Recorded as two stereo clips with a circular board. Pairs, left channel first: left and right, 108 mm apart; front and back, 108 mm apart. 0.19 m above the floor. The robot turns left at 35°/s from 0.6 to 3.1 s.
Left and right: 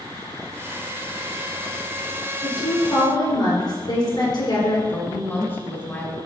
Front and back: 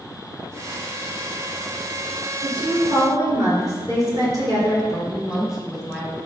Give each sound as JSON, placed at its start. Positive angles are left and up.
{"t": 2.4, "sound": "a woman speaking", "azimuth_deg": 155, "distance_m": 3.0}
{"t": 4.9, "sound": "a woman speaking", "azimuth_deg": 110, "distance_m": 1.6}